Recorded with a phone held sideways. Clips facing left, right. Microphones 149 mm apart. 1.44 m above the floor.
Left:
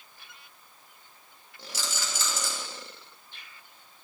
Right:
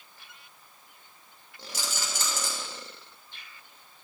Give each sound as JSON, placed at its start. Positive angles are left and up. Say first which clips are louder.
{"t": 1.7, "sound": "a rattle", "louder": "even", "side_deg": -55, "distance_m": 3.0}